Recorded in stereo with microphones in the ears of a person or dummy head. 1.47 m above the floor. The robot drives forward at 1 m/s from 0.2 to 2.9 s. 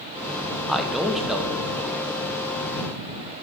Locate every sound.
0.7 s a man speaking: centre (ahead or behind), 0.8 m